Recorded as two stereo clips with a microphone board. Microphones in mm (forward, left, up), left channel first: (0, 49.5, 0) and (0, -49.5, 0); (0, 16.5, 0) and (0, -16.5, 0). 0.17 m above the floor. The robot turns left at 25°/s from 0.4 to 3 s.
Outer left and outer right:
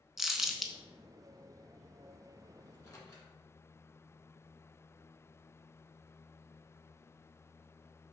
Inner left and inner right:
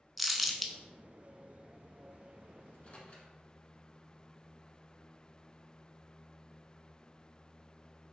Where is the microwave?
35° left (ahead or behind), 1.2 m; by 3.3 s 40° left (ahead or behind), 1.2 m.